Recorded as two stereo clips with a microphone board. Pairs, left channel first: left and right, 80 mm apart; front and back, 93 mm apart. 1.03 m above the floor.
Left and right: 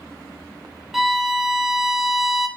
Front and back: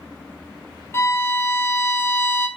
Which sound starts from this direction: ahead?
A violin, at 0.9 s.